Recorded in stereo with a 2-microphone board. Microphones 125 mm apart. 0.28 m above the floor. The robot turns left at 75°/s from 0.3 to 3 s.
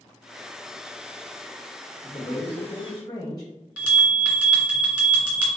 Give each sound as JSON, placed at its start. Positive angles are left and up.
{"t": 2.0, "sound": "a man speaking", "azimuth_deg": 130, "distance_m": 1.6}
{"t": 3.8, "sound": "a bell", "side_deg": -10, "distance_m": 1.9}